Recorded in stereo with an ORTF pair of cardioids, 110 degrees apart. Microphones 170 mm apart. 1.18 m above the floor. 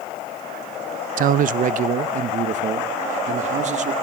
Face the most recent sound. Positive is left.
turn(degrees=-45)